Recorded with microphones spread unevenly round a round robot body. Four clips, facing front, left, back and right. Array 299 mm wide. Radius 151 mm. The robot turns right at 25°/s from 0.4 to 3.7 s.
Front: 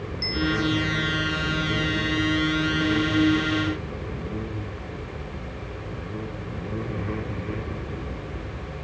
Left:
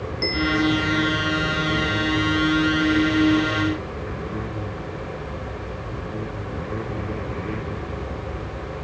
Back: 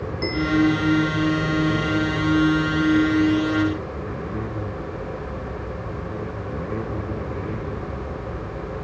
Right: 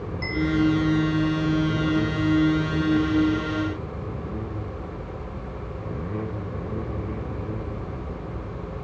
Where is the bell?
150° left; by 1.0 s 165° left.